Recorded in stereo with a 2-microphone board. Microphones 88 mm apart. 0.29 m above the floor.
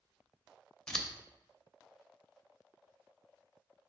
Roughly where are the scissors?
Centre.